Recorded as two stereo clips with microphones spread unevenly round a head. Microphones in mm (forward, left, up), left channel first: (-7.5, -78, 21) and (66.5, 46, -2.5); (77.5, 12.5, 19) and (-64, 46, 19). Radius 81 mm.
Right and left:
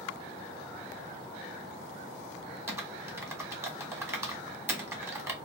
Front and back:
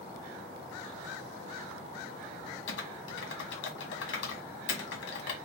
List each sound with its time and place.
2.7 s typing on a keyboard: 15° right, 1.5 m